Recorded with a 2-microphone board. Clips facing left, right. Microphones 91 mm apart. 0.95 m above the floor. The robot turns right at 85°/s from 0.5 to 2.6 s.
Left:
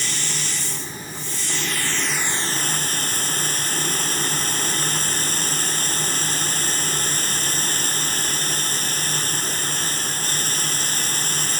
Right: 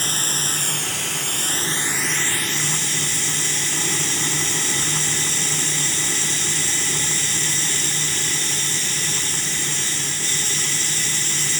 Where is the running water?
135° right; by 11.6 s 45° left.